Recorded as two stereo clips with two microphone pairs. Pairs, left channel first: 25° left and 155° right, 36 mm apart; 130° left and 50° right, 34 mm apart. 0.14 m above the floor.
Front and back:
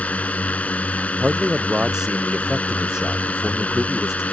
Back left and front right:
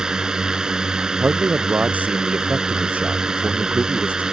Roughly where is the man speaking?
Right.